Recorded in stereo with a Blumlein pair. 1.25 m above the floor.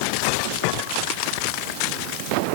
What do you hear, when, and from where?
Only background noise.